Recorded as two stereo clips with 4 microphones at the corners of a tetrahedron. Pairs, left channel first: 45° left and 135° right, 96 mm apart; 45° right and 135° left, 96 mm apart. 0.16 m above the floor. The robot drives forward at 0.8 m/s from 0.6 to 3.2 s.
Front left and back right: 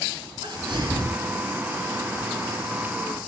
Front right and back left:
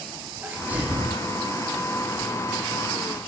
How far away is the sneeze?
About 3 m.